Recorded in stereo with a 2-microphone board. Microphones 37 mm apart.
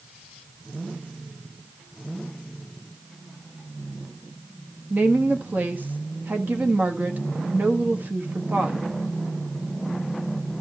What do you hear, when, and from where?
4.9 s a woman speaking: 50° right (ahead or behind), 1.5 m